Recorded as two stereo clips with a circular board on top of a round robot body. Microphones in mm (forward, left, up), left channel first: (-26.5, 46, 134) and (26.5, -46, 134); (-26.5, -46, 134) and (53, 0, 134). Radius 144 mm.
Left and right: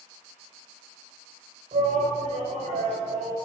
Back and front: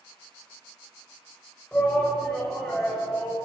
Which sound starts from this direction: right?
A shout, at 1.7 s.